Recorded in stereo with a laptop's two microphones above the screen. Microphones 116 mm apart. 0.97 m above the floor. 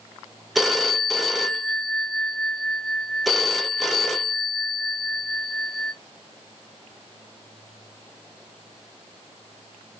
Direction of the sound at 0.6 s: Centre (ahead or behind).